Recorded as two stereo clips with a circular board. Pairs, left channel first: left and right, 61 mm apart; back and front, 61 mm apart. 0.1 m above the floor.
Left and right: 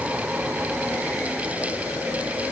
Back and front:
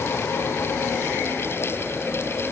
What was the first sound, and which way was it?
Only background noise.